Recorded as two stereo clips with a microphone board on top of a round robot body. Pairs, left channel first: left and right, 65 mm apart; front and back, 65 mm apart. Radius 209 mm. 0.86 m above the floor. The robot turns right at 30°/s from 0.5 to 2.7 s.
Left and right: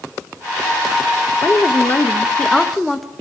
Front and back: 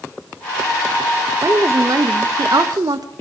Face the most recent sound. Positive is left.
turn(degrees=175)